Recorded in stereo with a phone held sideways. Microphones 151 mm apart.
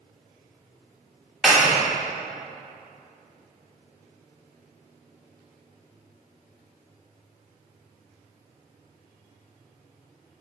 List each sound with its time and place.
1.4 s a clap: 5° right (ahead or behind), 2.5 m